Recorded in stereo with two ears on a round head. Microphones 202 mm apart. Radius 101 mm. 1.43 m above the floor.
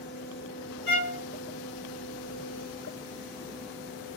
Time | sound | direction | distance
0.9 | a violin | 65° left (ahead or behind) | 1.5 m